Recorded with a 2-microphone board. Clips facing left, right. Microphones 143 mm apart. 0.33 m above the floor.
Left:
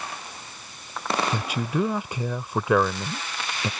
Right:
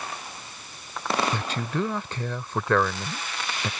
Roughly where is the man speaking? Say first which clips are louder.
Left 2 dB; centre.